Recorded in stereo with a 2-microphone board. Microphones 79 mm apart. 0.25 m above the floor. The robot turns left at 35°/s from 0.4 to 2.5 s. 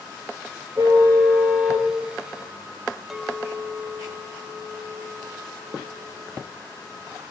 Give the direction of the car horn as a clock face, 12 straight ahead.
4 o'clock.